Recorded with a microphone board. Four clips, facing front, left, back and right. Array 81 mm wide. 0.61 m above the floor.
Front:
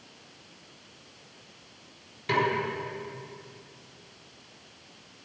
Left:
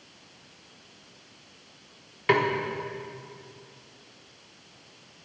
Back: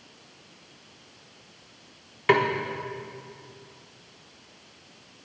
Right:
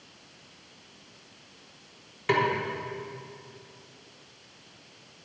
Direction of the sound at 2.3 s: 160° left.